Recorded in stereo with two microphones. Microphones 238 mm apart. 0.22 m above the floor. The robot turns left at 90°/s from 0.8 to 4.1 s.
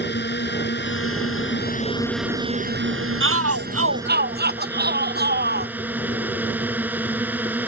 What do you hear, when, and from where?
0.0 s a drone: 125° left; by 7.7 s 170° right
3.2 s a shout: 55° right; by 5.7 s 135° right